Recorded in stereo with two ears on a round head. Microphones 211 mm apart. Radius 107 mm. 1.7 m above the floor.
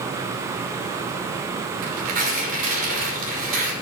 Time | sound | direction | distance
1.8 | tearing paper | 35° right (ahead or behind) | 5.5 m